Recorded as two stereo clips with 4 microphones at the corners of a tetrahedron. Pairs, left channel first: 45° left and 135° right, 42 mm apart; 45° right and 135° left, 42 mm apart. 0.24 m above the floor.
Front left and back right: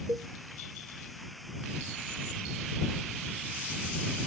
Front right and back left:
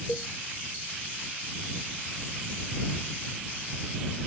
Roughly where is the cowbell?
Behind right.